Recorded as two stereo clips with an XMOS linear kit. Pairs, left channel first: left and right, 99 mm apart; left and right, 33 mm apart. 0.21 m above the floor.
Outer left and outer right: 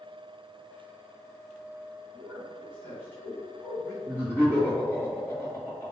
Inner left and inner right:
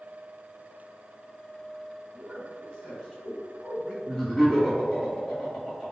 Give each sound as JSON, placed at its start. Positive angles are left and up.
{"t": 2.1, "sound": "a man speaking", "side_deg": 20, "distance_m": 1.5}
{"t": 4.0, "sound": "laughter", "side_deg": 20, "distance_m": 1.8}